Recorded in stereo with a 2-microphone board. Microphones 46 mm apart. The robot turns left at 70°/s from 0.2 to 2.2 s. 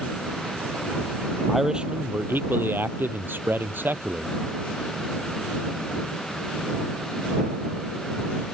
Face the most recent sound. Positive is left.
turn(degrees=-50)